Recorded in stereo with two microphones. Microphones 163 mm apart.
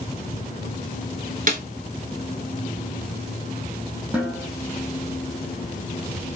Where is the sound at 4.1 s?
10° right (ahead or behind), 1.1 m.